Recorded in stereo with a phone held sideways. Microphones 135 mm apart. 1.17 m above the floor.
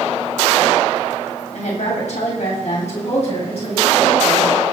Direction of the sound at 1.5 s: 75° left (ahead or behind).